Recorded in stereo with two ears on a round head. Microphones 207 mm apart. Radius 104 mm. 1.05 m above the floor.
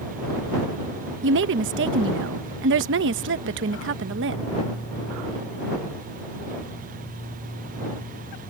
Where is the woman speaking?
55° right (ahead or behind).